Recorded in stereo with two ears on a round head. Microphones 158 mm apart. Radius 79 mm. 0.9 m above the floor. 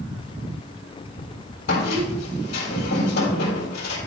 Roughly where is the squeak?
Left.